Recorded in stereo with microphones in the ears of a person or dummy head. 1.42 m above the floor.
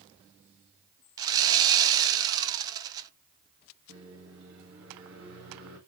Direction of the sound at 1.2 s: 20° right (ahead or behind).